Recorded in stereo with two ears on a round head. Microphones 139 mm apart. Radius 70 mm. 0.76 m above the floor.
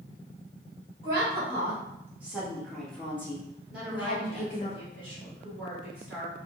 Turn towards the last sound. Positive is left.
turn(degrees=-10)  # may be behind; listen again after turning